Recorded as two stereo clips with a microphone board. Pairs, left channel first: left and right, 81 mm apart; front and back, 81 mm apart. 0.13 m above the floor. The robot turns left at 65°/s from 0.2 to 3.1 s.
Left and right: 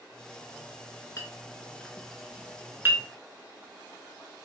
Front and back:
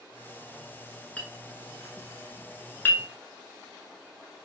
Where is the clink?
65° left, 0.8 m; by 3.0 s 60° right, 0.8 m.